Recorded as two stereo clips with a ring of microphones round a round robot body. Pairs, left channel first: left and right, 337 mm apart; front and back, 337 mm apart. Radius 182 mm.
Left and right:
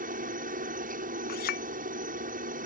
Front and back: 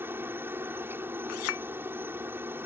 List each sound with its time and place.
0.0 s a helicopter: 105° right
1.3 s a clink: 30° left